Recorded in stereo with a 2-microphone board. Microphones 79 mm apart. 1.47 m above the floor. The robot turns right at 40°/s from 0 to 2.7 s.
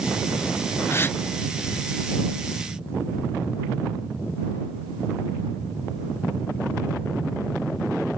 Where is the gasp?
35° left (ahead or behind); by 1.2 s 25° left (ahead or behind).